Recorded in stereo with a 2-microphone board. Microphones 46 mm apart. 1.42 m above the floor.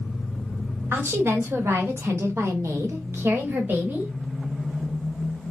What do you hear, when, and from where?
0.9 s a woman speaking: 55° right (ahead or behind), 1.3 m; by 4.1 s 40° right (ahead or behind), 1.2 m